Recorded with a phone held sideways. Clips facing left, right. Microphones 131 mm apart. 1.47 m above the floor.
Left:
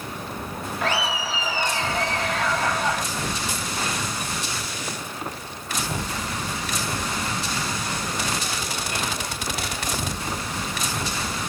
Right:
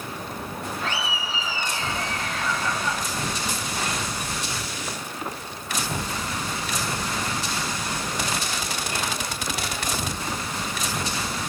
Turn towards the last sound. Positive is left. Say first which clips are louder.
# left 8 dB
turn(degrees=85)